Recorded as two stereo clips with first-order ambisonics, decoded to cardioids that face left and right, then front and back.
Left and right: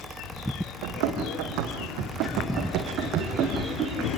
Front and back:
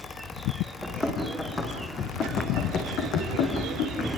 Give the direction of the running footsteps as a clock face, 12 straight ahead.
3 o'clock.